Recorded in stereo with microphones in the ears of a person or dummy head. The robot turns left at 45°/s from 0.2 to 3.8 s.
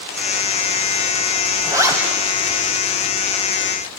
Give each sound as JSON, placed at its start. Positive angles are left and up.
{"t": 1.6, "sound": "a zipper", "side_deg": -25, "distance_m": 3.0}